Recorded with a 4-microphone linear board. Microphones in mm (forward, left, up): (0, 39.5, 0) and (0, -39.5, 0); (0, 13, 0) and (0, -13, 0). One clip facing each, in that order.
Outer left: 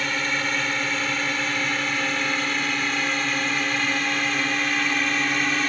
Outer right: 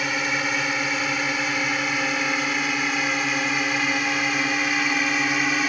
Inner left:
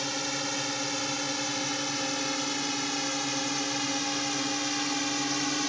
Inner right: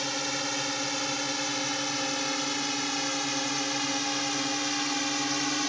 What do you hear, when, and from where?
0.0 s a drone: 10° right (ahead or behind); by 5.7 s 5° right (ahead or behind)